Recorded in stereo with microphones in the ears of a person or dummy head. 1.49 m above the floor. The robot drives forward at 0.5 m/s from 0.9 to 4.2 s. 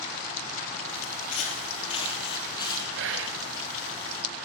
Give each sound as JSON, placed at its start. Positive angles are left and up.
{"t": 1.0, "sound": "footsteps", "side_deg": 45, "distance_m": 2.5}
{"t": 3.0, "sound": "whispering", "side_deg": -70, "distance_m": 0.9}